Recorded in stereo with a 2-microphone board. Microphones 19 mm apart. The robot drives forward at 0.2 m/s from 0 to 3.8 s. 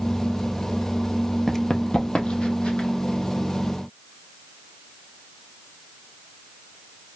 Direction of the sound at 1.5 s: 10° left (ahead or behind).